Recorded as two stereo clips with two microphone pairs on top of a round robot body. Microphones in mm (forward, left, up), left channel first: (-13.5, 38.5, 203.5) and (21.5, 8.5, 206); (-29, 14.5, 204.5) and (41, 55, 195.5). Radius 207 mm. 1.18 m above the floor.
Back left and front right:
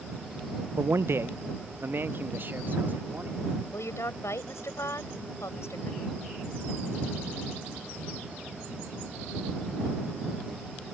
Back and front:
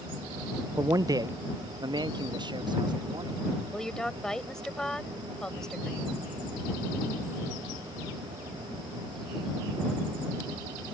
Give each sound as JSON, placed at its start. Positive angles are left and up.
{"t": 0.8, "sound": "a man speaking", "azimuth_deg": -20}
{"t": 3.7, "sound": "a woman speaking", "azimuth_deg": 130}